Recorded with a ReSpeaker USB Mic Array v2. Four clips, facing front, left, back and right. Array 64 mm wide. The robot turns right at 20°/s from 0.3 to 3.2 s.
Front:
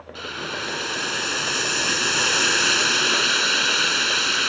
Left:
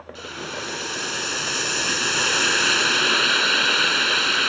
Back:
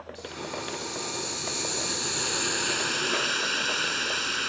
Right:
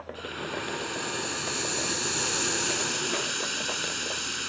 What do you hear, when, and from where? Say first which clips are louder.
0.1 s boiling: left 3 dB, front 7 dB; 10° left; by 4.5 s 70° left